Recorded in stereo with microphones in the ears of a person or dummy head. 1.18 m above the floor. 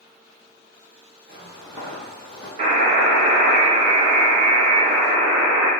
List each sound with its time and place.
1.3 s footsteps: 25° right (ahead or behind), 1.7 m; by 2.5 s 20° left (ahead or behind), 1.8 m
2.6 s a buzzer: 45° right (ahead or behind), 1.0 m